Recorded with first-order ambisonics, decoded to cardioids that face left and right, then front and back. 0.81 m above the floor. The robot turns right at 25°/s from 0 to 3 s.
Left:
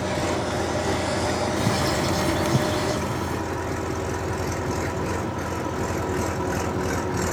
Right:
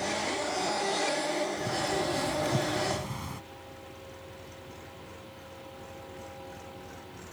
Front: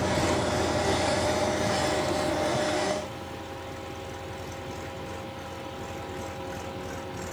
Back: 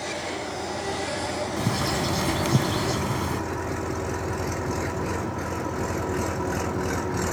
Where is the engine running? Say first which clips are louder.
Left 6 dB, front 4 dB; 45° left; by 7.3 s 120° left.